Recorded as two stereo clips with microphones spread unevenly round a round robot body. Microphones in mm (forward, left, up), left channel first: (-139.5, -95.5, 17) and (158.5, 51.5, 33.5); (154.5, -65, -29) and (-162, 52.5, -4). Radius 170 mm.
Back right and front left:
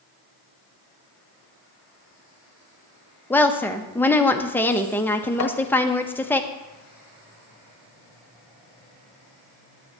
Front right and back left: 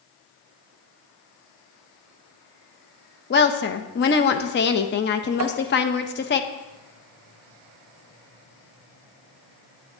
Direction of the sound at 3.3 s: 70° right.